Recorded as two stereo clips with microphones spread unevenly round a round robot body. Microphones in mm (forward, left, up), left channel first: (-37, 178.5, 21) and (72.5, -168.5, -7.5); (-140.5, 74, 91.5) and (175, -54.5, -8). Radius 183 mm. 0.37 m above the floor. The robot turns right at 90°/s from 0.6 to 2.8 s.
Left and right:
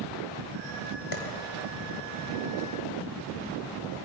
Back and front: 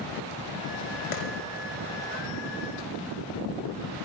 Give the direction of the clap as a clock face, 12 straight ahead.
7 o'clock.